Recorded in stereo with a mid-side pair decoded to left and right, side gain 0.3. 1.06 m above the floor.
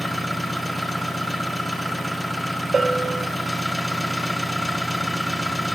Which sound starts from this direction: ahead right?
A bell, at 2.7 s.